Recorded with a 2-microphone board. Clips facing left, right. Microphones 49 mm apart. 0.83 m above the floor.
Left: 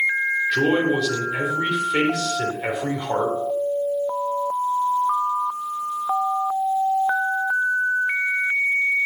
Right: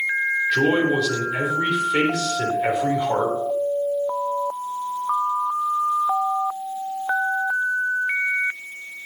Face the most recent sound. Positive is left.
turn(degrees=0)  # may be behind; listen again after turning